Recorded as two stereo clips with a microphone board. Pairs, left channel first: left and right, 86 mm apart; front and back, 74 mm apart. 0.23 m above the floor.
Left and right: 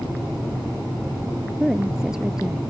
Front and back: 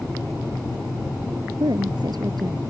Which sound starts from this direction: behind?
A woman speaking, at 1.6 s.